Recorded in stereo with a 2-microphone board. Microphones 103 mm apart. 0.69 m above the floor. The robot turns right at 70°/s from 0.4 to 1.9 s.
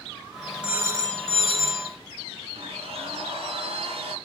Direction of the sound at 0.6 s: 165° right.